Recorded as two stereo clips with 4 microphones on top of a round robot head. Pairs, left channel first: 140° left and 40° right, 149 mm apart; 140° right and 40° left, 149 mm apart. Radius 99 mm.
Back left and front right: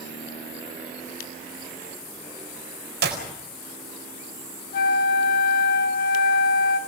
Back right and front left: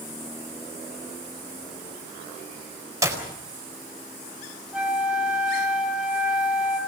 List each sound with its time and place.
3.0 s a clap: 30° right, 4.5 m
4.7 s a flute: 125° left, 3.5 m